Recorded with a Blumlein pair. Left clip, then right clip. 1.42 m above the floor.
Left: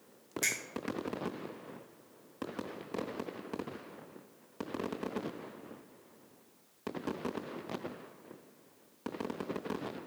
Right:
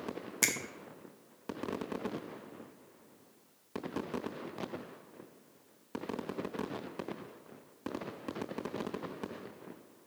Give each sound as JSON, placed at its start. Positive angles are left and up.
{"t": 0.4, "sound": "a finger snap", "azimuth_deg": -25, "distance_m": 0.7}